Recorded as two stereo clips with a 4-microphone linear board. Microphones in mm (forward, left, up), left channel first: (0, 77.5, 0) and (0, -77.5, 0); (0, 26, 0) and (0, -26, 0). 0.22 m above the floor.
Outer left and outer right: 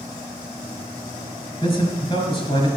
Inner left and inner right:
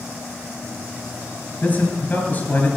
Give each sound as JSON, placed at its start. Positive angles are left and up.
{"t": 1.6, "sound": "a man speaking", "side_deg": 30, "distance_m": 4.0}